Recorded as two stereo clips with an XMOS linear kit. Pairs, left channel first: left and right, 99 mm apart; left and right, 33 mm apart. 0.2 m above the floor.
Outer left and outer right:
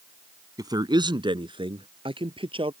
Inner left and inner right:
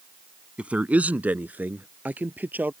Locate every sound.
0.6 s a man speaking: 45° right (ahead or behind); by 2.7 s 70° right (ahead or behind)